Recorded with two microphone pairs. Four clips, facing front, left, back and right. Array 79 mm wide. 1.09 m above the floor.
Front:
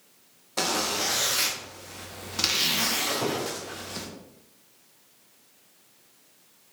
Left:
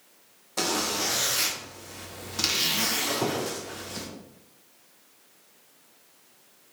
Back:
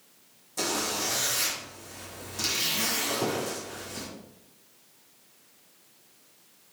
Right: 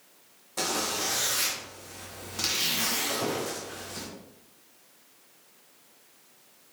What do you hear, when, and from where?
0.6 s a zipper: 30° left, 0.9 m
3.1 s a squeak: 90° left, 1.4 m